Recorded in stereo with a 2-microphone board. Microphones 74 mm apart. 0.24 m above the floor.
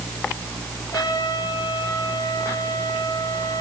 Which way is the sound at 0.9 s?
75° left (ahead or behind).